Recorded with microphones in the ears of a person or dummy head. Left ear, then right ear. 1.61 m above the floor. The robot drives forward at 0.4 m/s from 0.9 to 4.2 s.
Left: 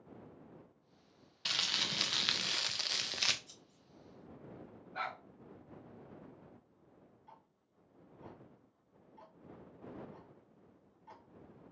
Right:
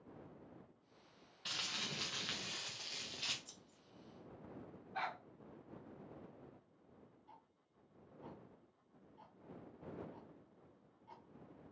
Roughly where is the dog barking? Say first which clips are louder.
Left 2 dB; centre.